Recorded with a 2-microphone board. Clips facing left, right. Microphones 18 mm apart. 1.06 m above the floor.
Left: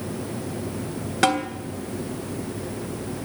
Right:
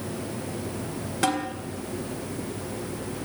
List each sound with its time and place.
1.2 s a snare drum: 30° left (ahead or behind), 2.5 m